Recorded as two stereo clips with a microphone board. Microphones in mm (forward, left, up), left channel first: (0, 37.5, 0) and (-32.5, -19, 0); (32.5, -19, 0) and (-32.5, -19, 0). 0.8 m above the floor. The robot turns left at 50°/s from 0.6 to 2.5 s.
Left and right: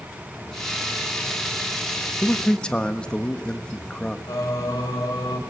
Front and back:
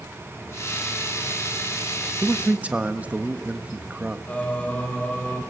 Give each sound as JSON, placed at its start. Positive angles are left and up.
{"t": 2.2, "sound": "a man speaking", "azimuth_deg": 140, "distance_m": 1.3}
{"t": 4.3, "sound": "singing", "azimuth_deg": 65, "distance_m": 3.0}